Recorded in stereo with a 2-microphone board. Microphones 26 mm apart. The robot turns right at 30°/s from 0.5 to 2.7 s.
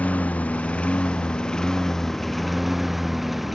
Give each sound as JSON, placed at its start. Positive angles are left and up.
{"t": 0.0, "sound": "a lawn mower", "azimuth_deg": 120}